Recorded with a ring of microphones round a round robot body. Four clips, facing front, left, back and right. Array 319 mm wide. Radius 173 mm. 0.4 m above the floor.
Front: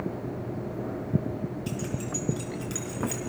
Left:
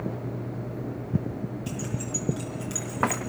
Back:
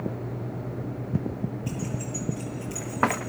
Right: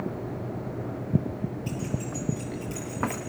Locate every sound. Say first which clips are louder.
1.7 s keys jangling: right 1 dB, even; 40° left, 5 m